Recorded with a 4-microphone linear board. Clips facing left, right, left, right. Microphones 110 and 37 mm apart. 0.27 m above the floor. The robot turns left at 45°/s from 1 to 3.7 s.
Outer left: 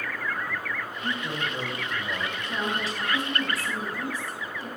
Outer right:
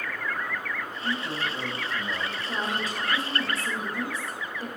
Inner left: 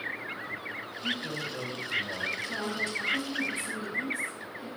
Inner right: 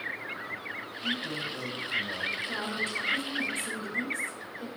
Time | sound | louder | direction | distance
1.0 | a man speaking | outer right 1 dB, inner right 1 dB | 20° left (ahead or behind) | 1.6 m
2.4 | a woman speaking | outer left 1 dB, even | 30° right | 4.5 m